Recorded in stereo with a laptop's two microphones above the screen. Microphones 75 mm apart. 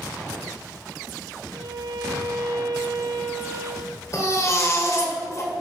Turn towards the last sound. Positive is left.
turn(degrees=45)  # may be behind; listen again after turning